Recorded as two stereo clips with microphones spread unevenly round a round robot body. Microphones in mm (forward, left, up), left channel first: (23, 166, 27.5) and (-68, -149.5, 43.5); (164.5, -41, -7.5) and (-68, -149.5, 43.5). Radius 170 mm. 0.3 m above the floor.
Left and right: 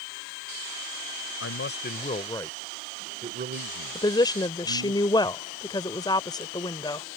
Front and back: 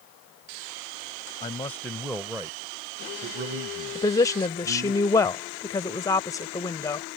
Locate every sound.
1.4 s a man speaking: 80° left; by 5.0 s 125° right
4.0 s a woman speaking: 20° left